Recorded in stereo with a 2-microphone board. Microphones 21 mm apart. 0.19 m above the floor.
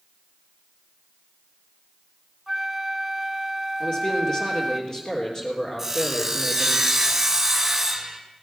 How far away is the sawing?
About 2 m.